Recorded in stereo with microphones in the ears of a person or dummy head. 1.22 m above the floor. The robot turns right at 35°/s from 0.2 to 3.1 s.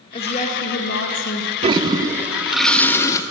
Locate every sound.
0.1 s a woman speaking: 35° left, 1.5 m; by 1.5 s 80° left, 1.5 m
1.6 s a toilet flushing: 35° right, 0.5 m; by 3.2 s 20° left, 0.5 m